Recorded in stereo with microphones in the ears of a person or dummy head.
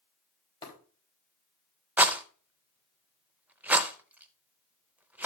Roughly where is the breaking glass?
Left.